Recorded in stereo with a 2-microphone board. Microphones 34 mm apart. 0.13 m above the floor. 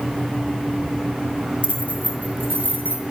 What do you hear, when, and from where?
1.6 s keys jangling: 40° right (ahead or behind), 1.8 m; by 3.1 s 75° right (ahead or behind), 3.5 m